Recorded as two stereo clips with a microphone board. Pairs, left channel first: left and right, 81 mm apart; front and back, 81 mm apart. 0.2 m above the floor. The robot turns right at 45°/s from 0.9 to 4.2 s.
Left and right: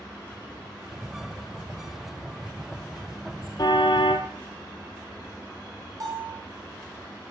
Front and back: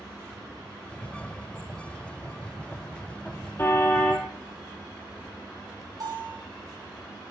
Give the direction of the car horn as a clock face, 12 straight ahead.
10 o'clock.